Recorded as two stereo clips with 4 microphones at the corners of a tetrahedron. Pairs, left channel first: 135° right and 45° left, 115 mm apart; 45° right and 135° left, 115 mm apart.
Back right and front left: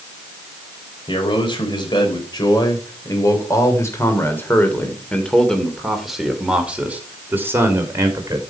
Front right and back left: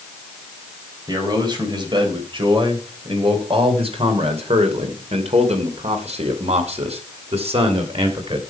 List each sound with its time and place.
1.1 s a man speaking: 175° right, 4 m; by 8.4 s 105° left, 3 m